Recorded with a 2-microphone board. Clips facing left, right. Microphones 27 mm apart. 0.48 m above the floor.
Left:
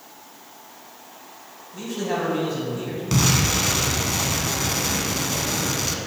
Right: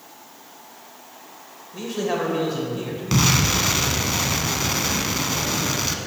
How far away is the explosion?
About 0.7 m.